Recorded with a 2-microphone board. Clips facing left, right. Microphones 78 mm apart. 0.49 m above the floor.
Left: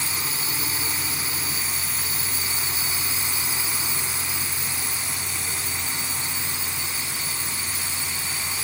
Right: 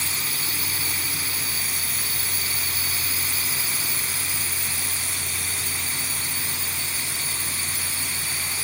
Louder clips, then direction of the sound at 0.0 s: Left 1 dB; 25° left (ahead or behind).